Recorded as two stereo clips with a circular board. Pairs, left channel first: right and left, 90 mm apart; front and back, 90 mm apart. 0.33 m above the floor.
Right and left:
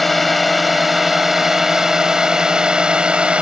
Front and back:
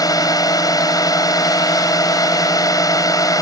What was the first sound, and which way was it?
A drone, straight ahead.